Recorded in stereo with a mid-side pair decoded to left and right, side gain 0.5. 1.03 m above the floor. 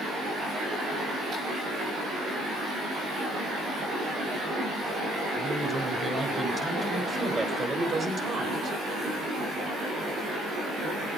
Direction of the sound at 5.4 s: 20° right.